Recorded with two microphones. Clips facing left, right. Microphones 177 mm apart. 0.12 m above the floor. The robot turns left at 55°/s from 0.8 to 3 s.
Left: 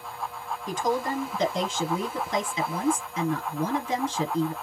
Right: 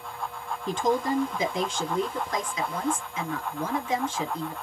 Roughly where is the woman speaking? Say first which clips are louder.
Right 2 dB; behind right.